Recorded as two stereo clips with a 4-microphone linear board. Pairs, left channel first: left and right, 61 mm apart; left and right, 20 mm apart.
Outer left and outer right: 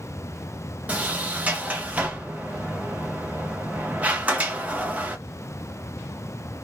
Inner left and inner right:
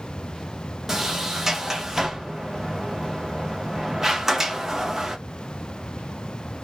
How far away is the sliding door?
About 0.6 m.